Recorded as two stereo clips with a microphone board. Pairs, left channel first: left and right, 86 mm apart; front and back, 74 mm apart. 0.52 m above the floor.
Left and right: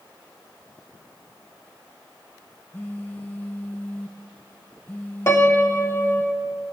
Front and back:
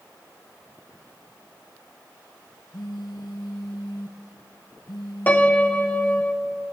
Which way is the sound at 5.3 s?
55° left.